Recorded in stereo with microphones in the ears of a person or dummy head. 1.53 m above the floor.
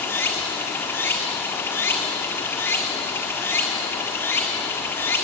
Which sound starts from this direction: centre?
Running water, at 0.0 s.